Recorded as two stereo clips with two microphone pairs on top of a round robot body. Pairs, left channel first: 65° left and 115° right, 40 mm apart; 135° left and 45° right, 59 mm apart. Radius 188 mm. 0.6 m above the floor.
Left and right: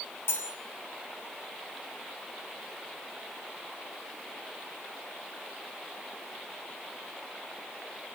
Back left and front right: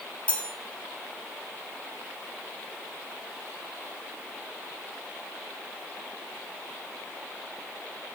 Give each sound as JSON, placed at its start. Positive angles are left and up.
{"t": 0.3, "sound": "cutlery clinking", "azimuth_deg": 65, "distance_m": 1.7}